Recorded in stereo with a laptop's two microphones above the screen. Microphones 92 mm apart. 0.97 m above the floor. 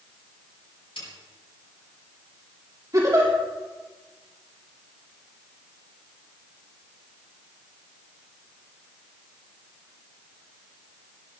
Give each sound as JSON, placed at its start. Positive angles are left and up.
{"t": 1.0, "sound": "a snare drum", "side_deg": 75, "distance_m": 5.0}
{"t": 2.9, "sound": "a giggle", "side_deg": -40, "distance_m": 2.5}